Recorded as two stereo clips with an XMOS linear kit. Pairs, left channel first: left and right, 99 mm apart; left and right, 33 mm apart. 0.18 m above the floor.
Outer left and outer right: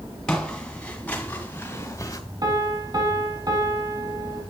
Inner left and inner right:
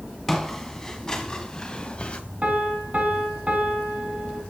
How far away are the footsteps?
About 1.9 m.